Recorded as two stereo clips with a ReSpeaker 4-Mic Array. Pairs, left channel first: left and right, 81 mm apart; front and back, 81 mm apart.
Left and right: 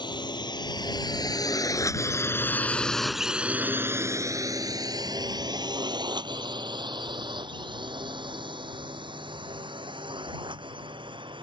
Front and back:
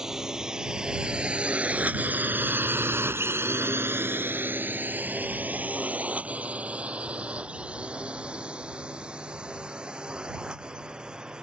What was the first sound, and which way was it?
A drone, 100° left.